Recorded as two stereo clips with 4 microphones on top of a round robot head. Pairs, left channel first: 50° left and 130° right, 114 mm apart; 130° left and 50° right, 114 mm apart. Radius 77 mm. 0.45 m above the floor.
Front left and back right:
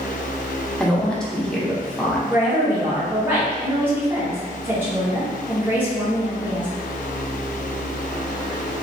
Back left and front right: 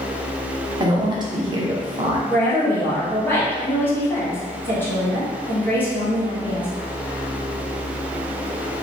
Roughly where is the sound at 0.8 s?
Ahead right.